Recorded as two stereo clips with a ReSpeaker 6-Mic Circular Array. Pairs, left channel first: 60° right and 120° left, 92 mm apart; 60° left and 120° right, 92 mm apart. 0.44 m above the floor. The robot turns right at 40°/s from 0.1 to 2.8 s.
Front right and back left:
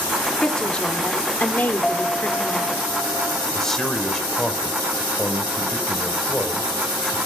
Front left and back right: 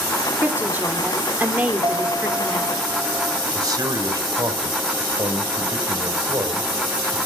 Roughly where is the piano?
Behind right.